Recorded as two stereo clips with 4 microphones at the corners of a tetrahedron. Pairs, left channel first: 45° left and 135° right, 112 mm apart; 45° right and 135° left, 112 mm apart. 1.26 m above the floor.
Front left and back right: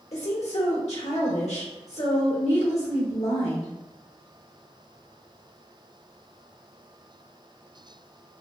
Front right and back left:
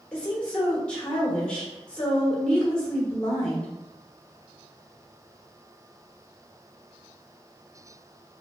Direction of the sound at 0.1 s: 35° left.